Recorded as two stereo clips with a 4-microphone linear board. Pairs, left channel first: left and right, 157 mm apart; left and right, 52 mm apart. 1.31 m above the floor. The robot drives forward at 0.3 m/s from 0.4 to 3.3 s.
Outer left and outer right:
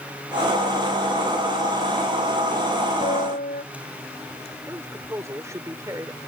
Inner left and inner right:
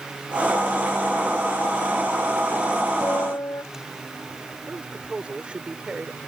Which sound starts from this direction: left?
A piano, at 3.0 s.